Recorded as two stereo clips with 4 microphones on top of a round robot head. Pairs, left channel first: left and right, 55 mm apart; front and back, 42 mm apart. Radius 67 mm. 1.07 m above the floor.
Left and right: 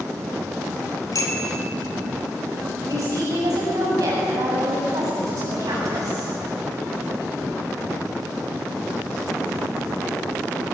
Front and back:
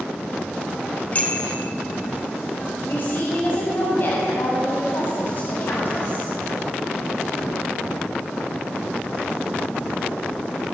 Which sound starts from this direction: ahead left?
A bicycle bell, at 1.1 s.